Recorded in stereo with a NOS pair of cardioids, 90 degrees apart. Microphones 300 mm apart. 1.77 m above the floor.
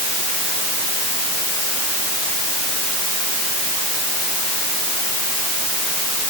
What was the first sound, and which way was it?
Only background noise.